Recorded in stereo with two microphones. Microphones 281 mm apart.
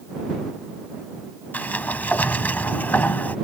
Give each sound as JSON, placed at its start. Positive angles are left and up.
{"t": 1.5, "sound": "a sliding door", "side_deg": 5}